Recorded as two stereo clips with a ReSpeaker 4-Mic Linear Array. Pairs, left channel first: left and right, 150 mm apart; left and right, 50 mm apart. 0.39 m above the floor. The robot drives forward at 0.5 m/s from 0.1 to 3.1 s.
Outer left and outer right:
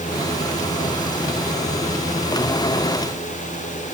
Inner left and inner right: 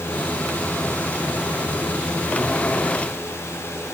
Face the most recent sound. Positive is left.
No sound to turn to.